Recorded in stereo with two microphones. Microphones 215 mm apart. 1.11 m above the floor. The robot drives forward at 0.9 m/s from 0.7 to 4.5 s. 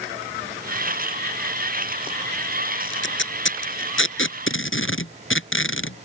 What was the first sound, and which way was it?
Tape being pulled, 60° left (ahead or behind).